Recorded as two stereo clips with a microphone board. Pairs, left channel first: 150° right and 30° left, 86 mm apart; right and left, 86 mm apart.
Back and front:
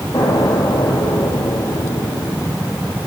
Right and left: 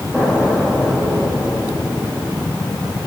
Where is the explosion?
Straight behind, 6 m.